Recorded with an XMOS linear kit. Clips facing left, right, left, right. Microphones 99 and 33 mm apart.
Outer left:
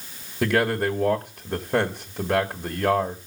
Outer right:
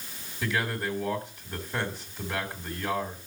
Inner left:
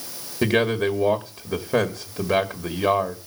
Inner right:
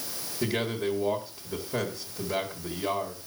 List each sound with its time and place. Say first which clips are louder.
0.4 s a man speaking: outer left 8 dB, inner left 8 dB; 60° left (ahead or behind), 1.9 m